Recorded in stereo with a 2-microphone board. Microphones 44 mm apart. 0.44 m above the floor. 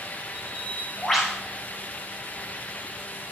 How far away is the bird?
About 9 m.